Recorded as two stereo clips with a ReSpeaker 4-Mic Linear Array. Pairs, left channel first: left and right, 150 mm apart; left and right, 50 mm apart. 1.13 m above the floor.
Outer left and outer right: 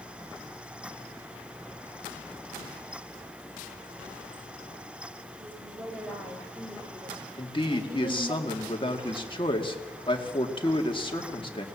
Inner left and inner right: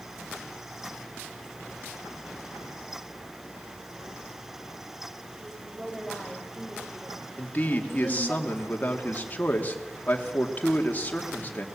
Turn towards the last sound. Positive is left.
turn(degrees=35)  # may be behind; listen again after turning